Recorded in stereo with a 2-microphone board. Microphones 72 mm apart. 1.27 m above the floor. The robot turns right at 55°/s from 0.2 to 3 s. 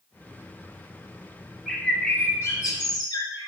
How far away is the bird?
About 1.8 m.